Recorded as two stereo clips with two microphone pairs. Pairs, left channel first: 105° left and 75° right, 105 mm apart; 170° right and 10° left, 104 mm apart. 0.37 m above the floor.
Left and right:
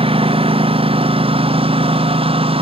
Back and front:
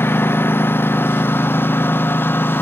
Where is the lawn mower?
100° right.